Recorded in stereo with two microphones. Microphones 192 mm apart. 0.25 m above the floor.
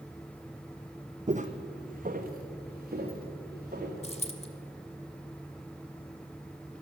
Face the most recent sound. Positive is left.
turn(degrees=35)  # may be behind; listen again after turning